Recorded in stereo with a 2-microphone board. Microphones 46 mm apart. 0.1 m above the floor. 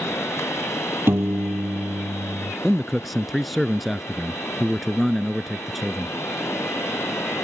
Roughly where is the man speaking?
Centre.